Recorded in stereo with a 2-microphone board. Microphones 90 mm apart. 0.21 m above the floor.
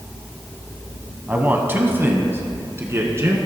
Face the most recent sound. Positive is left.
turn(degrees=-30)  # may be behind; listen again after turning